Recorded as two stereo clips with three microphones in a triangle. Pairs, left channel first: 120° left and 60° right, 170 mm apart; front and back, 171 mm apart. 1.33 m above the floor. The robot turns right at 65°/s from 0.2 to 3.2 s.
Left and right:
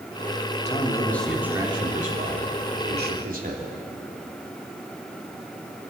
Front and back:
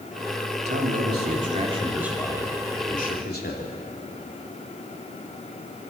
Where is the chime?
I don't hear a chime.